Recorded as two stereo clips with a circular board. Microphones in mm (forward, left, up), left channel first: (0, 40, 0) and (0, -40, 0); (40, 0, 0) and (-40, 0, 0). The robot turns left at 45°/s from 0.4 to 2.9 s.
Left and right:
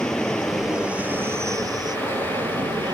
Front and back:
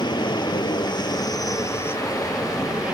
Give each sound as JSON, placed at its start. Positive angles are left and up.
{"t": 0.0, "sound": "an aircraft", "azimuth_deg": 5}